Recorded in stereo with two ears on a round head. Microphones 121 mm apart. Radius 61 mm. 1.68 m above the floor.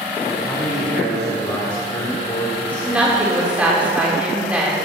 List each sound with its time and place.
0.3 s a man speaking: 10° left (ahead or behind), 4 m; by 3.1 s 40° left (ahead or behind), 4.5 m
2.8 s a woman speaking: 10° right (ahead or behind), 4.5 m